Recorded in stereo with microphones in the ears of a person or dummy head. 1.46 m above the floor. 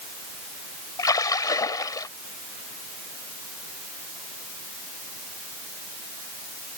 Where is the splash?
20° left (ahead or behind).